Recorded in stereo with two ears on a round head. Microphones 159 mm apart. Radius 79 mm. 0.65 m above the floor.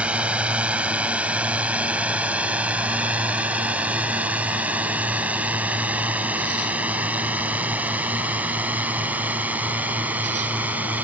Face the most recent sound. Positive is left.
turn(degrees=-10)  # may be behind; listen again after turning